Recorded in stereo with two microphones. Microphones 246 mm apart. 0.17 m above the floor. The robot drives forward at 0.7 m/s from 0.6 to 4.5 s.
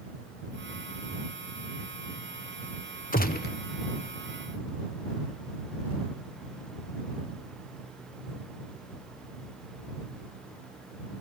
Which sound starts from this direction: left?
A gunshot, at 3.1 s.